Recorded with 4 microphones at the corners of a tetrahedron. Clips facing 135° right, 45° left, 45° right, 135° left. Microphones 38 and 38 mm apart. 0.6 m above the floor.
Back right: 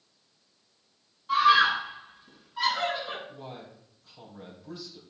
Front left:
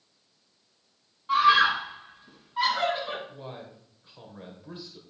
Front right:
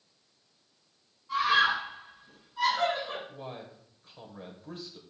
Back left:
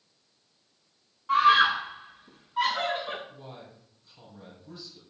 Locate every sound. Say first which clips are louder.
1.3 s a scream: front left 1 dB, back left 5 dB; 110° left, 5 m; by 3.2 s 95° left, 4.5 m
3.3 s a man speaking: front left 1 dB, front right 3 dB; 15° right, 2.5 m